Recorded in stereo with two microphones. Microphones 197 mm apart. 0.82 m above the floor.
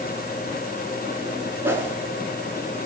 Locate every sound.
1.6 s a whoosh: 10° right (ahead or behind), 2 m